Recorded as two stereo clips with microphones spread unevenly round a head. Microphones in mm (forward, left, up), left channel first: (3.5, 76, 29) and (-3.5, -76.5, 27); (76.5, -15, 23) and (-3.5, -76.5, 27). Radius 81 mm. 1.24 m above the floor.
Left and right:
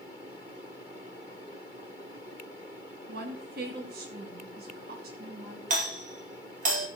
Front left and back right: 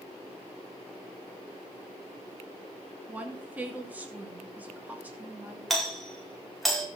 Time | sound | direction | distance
3.1 | a woman speaking | 65° right | 3 m
5.7 | a doorbell | 50° right | 4.5 m